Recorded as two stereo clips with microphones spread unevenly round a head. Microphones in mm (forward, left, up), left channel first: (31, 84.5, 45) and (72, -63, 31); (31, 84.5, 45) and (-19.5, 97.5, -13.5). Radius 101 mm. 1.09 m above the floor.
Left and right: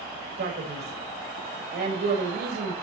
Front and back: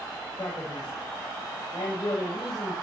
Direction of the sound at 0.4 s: 65° right.